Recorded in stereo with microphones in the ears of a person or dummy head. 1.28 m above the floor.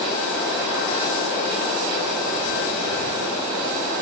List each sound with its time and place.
Only background noise.